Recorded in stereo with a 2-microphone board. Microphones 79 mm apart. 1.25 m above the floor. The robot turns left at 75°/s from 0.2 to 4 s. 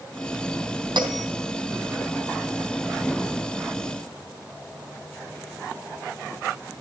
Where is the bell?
75° right (ahead or behind), 4 m; by 1.3 s 55° right (ahead or behind), 4 m.